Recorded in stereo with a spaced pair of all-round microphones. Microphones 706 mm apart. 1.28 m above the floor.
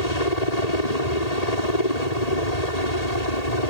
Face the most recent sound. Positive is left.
turn(degrees=65)  # may be behind; listen again after turning